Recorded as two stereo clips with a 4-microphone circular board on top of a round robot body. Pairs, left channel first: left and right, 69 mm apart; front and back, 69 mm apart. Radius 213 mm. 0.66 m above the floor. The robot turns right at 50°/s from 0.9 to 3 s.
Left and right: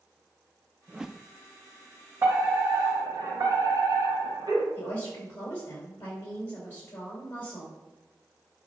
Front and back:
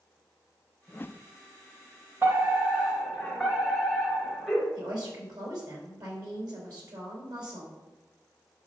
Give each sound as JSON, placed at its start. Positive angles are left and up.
{"t": 0.9, "sound": "a whoosh", "azimuth_deg": -20, "distance_m": 0.5}
{"t": 2.2, "sound": "a fire alarm", "azimuth_deg": -130, "distance_m": 3.5}
{"t": 4.8, "sound": "a woman speaking", "azimuth_deg": 155, "distance_m": 4.0}